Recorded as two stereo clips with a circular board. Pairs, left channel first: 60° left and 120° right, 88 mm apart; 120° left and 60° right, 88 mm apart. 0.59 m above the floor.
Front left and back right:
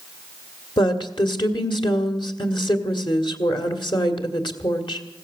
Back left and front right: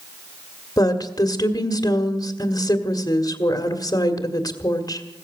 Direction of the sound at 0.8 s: 80° left.